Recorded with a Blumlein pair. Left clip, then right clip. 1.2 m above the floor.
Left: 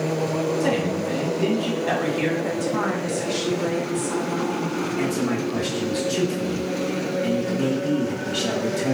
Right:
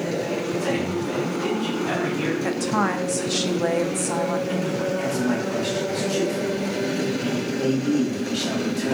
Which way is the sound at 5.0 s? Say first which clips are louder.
Even; 30° left.